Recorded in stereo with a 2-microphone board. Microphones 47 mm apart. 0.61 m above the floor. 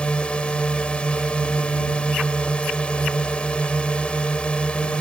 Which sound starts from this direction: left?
A drone, at 0.0 s.